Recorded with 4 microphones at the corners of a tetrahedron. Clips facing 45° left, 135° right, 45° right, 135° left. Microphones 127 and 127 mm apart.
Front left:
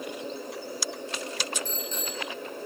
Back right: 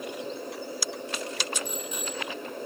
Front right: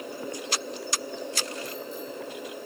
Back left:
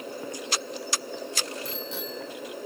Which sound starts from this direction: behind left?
A bicycle bell, at 1.6 s.